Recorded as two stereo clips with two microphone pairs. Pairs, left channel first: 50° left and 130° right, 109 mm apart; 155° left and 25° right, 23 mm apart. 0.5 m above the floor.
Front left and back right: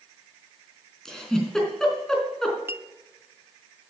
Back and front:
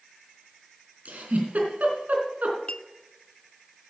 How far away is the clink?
About 0.6 m.